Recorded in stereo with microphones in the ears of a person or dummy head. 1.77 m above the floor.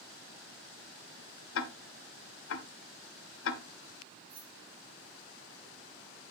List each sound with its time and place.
1.6 s ticking: 75° left (ahead or behind), 1.0 m
4.3 s keys jangling: 55° right (ahead or behind), 3 m